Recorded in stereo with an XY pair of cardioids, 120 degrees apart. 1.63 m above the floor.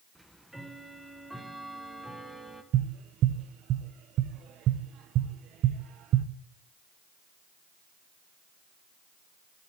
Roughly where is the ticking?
Ahead.